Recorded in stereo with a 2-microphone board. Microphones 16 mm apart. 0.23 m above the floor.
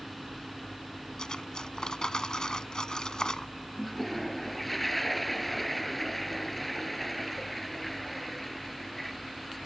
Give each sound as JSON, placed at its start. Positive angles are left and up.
{"t": 1.2, "sound": "cutlery clinking", "side_deg": 55}
{"t": 3.8, "sound": "a toilet flushing", "side_deg": 10}